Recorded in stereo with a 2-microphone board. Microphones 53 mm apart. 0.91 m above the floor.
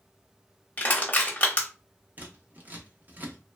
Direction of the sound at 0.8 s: 30° left (ahead or behind).